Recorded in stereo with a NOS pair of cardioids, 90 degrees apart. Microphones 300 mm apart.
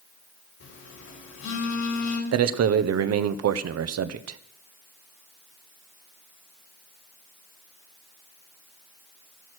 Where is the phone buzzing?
65° left, 5.5 m.